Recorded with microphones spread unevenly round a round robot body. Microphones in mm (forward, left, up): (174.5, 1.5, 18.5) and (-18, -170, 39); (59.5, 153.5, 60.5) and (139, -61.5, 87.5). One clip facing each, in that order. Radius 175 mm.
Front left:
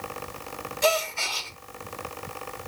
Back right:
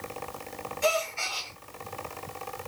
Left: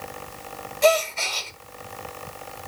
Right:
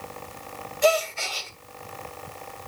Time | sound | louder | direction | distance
0.8 | a gasp | front left 3 dB, left 2 dB | 10° left | 1.8 m